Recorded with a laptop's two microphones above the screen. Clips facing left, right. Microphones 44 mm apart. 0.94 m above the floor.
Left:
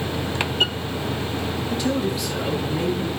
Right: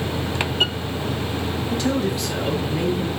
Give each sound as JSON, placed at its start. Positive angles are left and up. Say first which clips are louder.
{"t": 1.7, "sound": "a man speaking", "louder": "right 1 dB", "side_deg": -55, "distance_m": 7.0}